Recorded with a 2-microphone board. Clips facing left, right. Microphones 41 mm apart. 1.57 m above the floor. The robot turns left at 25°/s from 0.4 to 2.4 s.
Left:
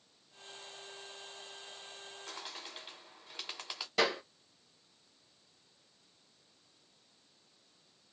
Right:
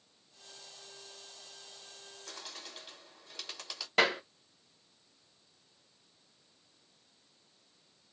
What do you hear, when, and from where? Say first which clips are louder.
2.3 s a bird: left 1 dB; 25° left (ahead or behind), 1.5 m
4.0 s a clap: right 3 dB; 40° right (ahead or behind), 1.1 m